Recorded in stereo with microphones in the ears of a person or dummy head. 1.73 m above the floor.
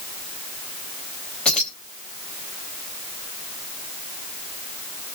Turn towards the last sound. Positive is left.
turn(degrees=10)  # may be behind; listen again after turning